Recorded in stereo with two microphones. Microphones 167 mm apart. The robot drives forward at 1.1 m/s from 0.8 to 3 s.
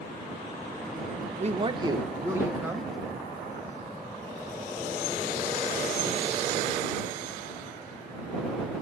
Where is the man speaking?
45° right (ahead or behind), 0.5 m; by 2.9 s 10° right (ahead or behind), 2.0 m.